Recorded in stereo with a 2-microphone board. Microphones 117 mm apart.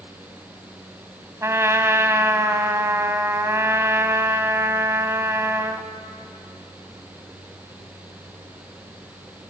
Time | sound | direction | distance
1.4 | a trumpet | 25° right (ahead or behind) | 1.4 m